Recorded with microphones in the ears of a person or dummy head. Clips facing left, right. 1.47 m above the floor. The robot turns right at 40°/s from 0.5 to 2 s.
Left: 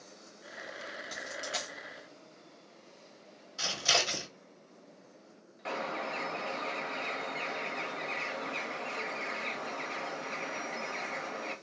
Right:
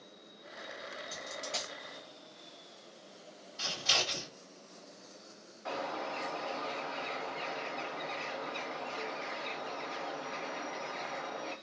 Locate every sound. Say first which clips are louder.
1.1 s a dropped coin: left 2 dB; 25° left (ahead or behind), 0.9 m; by 1.7 s 10° left (ahead or behind), 0.9 m
3.6 s scissors: left 4 dB; 75° left (ahead or behind), 1.1 m
5.7 s a bird: left 1 dB; 40° left (ahead or behind), 0.9 m